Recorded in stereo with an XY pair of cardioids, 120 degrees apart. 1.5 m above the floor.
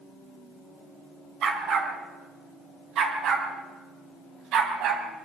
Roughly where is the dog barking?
Ahead right.